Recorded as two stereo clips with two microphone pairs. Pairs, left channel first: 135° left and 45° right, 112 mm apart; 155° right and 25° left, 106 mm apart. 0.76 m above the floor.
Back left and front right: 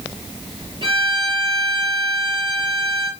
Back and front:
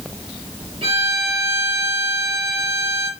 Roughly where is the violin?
Ahead.